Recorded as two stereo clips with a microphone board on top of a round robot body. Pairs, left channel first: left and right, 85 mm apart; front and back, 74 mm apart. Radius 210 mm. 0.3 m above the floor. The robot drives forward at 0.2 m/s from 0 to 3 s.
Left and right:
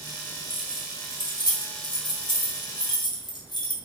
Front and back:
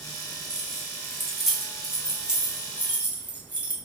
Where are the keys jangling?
80° left, 1.1 m; by 3.7 s 110° left, 1.2 m.